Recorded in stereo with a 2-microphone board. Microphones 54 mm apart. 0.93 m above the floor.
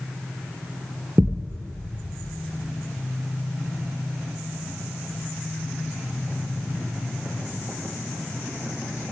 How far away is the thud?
About 3 m.